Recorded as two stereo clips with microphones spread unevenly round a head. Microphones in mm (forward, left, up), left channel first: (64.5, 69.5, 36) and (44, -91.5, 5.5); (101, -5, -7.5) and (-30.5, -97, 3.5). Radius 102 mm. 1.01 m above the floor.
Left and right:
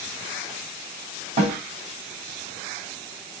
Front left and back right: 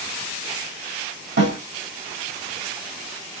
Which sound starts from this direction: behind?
A snare drum, at 1.4 s.